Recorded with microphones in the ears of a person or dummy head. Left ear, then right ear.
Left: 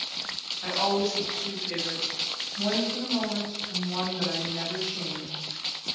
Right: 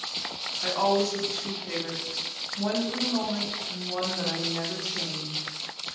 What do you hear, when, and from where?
0.6 s a woman speaking: 15° right (ahead or behind), 0.7 m